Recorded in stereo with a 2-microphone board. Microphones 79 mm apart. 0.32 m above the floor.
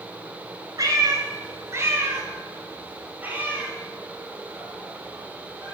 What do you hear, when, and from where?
0.8 s a cat meowing: 50° right (ahead or behind), 1.3 m; by 5.8 s 10° right (ahead or behind), 4 m